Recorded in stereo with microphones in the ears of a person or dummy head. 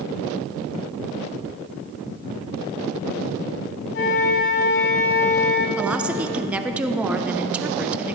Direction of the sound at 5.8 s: 5° right (ahead or behind).